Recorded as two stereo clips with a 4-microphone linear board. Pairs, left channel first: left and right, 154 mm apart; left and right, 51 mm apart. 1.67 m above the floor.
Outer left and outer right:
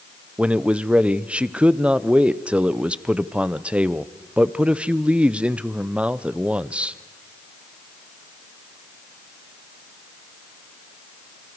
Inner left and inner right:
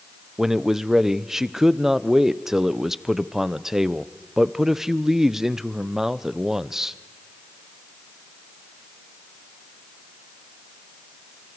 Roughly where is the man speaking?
Centre.